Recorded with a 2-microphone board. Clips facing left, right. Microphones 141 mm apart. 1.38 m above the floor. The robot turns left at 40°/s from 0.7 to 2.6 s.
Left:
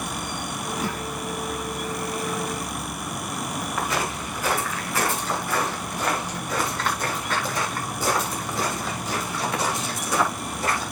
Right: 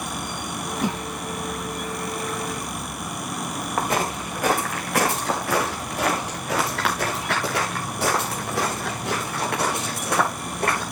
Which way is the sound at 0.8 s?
15° right (ahead or behind).